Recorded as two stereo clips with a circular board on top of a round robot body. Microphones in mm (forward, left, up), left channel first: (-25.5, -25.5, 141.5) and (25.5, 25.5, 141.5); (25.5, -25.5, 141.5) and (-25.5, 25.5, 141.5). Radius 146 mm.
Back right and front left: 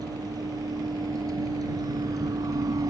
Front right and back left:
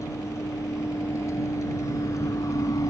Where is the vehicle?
5° left; by 2.9 s straight ahead.